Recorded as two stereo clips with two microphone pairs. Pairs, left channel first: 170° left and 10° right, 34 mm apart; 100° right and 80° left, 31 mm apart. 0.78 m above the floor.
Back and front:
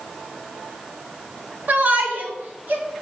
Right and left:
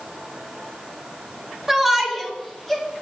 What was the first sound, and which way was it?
A shout, straight ahead.